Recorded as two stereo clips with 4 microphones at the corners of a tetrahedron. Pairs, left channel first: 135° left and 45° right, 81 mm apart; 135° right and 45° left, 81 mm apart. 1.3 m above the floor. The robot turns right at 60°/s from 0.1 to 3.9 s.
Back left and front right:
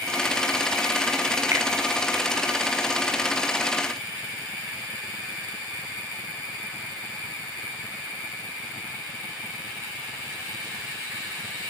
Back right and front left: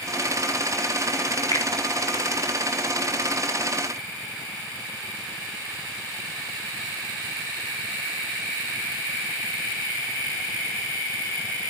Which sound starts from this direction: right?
A finger snap, at 1.5 s.